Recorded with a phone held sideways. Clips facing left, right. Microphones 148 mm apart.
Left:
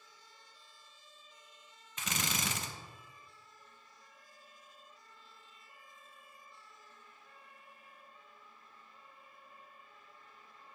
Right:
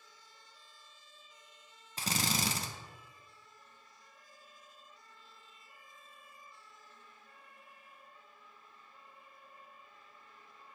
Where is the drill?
35° right (ahead or behind), 0.6 m.